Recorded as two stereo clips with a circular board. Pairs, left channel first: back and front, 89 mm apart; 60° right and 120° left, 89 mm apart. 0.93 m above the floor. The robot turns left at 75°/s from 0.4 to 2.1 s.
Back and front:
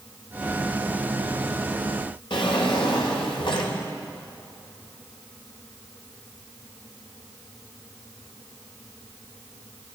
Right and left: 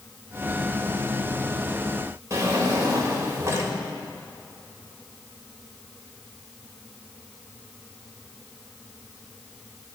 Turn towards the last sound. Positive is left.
turn(degrees=175)